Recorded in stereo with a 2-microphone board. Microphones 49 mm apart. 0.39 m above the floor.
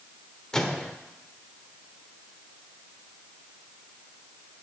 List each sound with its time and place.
0.5 s a microwave: 15° left (ahead or behind), 1.1 m